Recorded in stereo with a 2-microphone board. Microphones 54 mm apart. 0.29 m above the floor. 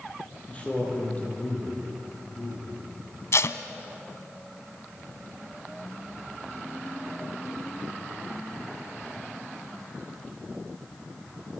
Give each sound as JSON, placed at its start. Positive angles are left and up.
{"t": 0.5, "sound": "a man speaking", "side_deg": 25, "distance_m": 9.0}
{"t": 3.3, "sound": "tape being pulled", "side_deg": 60, "distance_m": 1.1}